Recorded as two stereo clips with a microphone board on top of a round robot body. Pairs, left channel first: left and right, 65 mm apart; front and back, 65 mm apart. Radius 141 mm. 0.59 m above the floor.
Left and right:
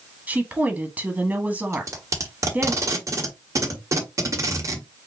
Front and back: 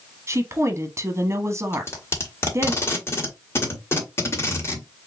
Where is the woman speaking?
150° right, 1.2 m.